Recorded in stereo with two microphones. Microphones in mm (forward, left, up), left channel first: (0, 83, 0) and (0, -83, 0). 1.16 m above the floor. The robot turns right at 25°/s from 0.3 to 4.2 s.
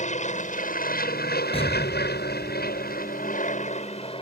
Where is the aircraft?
50° left; by 4.2 s 145° left.